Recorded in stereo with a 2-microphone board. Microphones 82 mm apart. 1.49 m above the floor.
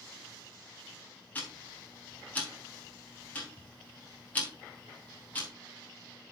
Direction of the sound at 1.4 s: 20° left (ahead or behind).